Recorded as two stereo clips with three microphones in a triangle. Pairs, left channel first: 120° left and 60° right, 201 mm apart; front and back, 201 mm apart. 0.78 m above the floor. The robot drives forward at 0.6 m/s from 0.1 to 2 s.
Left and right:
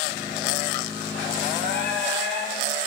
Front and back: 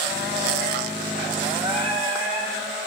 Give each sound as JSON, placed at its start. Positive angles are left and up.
{"t": 1.6, "sound": "singing", "azimuth_deg": -115, "distance_m": 9.0}